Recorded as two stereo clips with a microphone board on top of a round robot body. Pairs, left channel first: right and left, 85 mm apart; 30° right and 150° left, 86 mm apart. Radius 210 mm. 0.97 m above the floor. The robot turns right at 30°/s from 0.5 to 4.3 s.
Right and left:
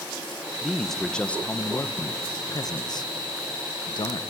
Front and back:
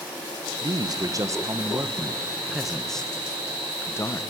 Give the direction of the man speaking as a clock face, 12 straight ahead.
6 o'clock.